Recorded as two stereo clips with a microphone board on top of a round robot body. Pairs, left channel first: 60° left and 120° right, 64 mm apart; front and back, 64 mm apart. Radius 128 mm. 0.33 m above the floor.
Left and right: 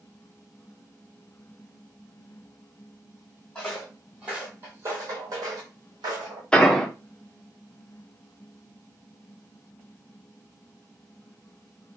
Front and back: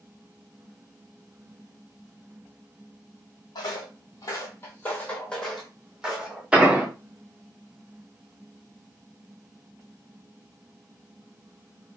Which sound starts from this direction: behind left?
An explosion, at 6.5 s.